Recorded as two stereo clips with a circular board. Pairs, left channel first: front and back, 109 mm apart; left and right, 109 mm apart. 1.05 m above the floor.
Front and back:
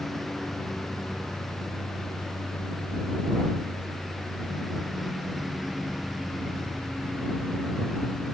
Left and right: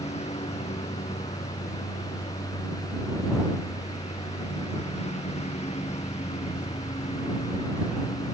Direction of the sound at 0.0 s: 90° left.